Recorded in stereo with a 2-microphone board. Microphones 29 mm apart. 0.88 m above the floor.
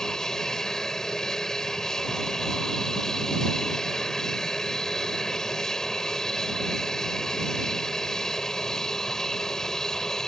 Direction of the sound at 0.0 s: 20° left (ahead or behind).